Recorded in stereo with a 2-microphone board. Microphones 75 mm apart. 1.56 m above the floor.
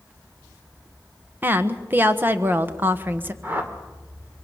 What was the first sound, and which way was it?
A woman speaking, 25° right (ahead or behind).